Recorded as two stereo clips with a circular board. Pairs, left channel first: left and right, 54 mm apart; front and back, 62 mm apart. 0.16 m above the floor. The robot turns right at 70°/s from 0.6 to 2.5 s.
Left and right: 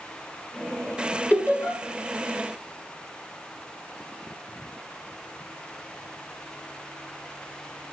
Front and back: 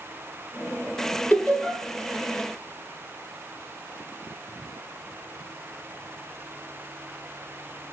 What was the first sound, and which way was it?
Laughter, 45° left.